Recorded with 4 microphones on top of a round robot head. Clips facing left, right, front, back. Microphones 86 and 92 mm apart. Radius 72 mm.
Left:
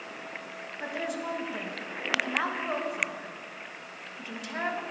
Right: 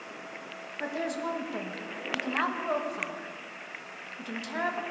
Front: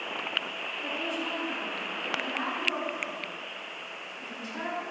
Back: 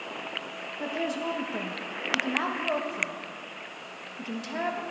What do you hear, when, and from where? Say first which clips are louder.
0.8 s a woman speaking: right 2 dB, back 4 dB; 165° right, 1.7 m